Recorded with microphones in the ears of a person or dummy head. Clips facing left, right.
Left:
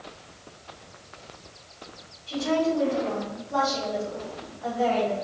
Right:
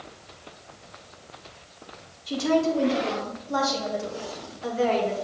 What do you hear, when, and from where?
2.3 s a woman speaking: 60° right (ahead or behind), 1.8 m; by 5.1 s 70° right (ahead or behind), 3 m